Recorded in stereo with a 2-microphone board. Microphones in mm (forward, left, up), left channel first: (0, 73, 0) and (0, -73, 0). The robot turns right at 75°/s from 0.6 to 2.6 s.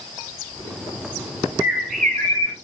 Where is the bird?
20° right, 5 m; by 2.5 s 50° left, 5 m.